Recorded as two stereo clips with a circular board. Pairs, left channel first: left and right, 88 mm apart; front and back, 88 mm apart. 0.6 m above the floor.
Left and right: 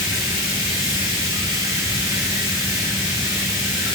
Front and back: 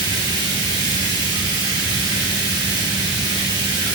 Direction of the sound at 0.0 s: 140° right.